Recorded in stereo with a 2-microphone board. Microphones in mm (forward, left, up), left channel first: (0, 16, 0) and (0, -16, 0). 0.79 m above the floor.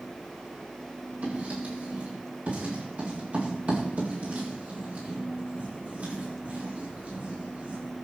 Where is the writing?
55° right (ahead or behind), 6.5 m.